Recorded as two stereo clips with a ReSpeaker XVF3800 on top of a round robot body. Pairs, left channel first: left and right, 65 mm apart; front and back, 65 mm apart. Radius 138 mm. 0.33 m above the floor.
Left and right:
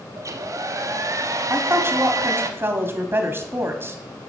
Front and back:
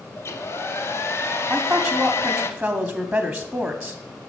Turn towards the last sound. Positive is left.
turn(degrees=-105)